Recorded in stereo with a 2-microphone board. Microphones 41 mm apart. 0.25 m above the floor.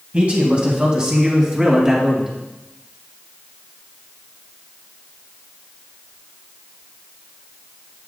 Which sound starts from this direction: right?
A man speaking, at 0.1 s.